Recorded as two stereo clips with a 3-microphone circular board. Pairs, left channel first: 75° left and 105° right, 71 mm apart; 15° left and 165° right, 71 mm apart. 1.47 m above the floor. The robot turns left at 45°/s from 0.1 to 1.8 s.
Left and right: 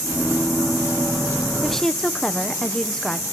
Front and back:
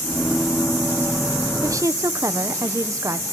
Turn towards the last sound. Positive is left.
turn(degrees=155)